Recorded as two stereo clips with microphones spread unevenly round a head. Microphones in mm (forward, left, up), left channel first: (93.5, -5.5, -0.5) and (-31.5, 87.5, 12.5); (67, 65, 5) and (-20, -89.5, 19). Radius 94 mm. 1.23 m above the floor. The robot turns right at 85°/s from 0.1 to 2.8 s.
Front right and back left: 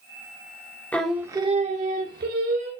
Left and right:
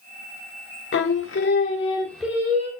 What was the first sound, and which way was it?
Singing, 45° left.